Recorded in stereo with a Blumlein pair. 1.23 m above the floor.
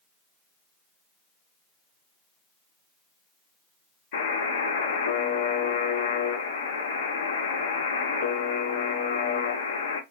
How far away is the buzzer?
About 0.6 m.